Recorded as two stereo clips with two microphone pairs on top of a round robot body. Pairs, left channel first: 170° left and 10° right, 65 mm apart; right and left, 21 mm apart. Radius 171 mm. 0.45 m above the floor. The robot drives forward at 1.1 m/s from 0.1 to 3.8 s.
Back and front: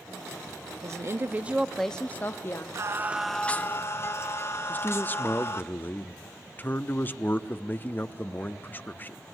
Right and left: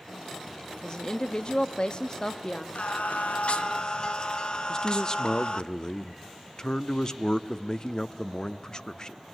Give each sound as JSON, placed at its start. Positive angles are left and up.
{"t": 0.8, "sound": "a woman speaking", "azimuth_deg": -25, "distance_m": 1.4}
{"t": 2.8, "sound": "singing", "azimuth_deg": -50, "distance_m": 0.8}
{"t": 4.7, "sound": "a man speaking", "azimuth_deg": -145, "distance_m": 1.2}